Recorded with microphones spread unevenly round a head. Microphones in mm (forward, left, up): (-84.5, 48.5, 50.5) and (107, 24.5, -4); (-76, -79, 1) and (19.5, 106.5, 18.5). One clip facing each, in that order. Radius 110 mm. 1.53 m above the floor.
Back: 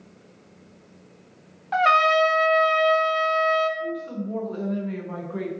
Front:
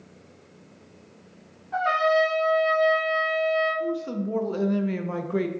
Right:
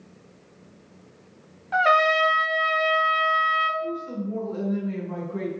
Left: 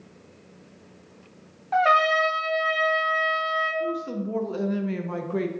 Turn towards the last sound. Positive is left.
turn(degrees=25)